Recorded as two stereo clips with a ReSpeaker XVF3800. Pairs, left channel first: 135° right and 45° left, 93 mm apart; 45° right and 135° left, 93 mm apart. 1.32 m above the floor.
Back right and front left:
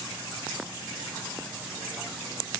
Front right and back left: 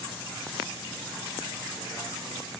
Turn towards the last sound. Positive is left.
No sound to turn to.